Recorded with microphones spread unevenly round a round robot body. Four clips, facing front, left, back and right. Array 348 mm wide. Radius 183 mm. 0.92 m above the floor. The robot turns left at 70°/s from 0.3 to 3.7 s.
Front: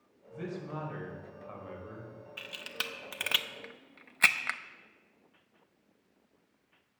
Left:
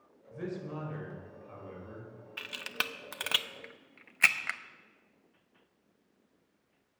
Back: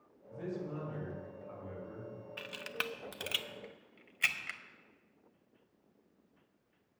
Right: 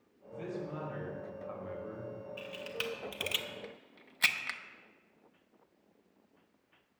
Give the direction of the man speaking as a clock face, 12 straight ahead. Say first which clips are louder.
Left 1 dB, front 1 dB; 10 o'clock.